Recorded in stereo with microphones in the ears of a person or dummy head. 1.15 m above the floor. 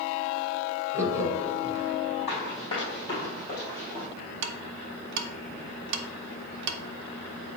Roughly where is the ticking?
Right.